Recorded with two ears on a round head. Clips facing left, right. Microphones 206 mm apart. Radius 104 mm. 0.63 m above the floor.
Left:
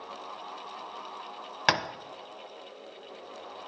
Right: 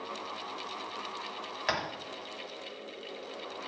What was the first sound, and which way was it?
Tapping, 65° left (ahead or behind).